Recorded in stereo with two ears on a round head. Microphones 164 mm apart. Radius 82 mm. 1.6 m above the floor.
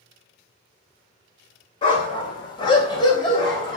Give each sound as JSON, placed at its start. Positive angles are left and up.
{"t": 1.8, "sound": "a dog barking", "side_deg": 25, "distance_m": 2.5}